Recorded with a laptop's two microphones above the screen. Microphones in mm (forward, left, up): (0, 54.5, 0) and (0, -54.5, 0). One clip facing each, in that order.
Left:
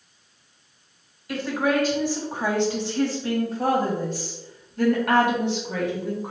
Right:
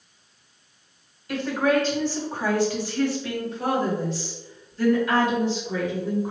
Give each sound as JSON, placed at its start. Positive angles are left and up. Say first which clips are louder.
{"t": 1.3, "sound": "a woman speaking", "louder": "right 1 dB", "side_deg": 5, "distance_m": 2.0}